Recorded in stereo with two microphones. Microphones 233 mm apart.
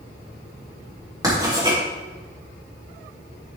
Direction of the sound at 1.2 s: 15° right (ahead or behind).